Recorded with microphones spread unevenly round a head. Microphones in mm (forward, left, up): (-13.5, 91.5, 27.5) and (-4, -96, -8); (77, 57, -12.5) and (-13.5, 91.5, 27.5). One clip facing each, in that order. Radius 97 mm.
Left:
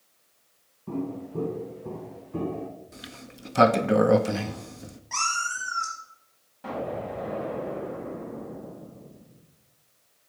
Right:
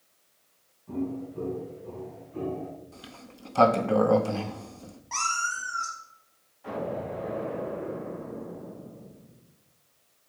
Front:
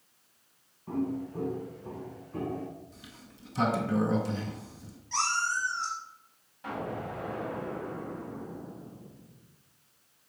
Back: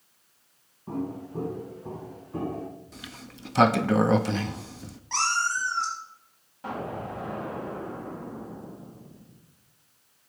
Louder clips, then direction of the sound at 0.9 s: Even, front 1 dB; 95° left.